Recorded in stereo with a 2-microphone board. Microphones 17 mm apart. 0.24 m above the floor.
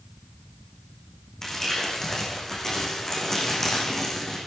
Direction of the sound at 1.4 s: 25° left (ahead or behind).